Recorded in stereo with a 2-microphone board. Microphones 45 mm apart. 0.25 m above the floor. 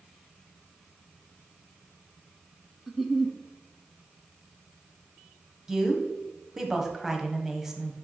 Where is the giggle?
5° right (ahead or behind), 0.5 m.